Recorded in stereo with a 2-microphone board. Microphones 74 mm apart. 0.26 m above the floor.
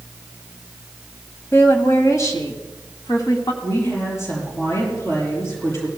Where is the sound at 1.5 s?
35° left (ahead or behind), 1.6 m; by 3.5 s 55° left (ahead or behind), 2.5 m.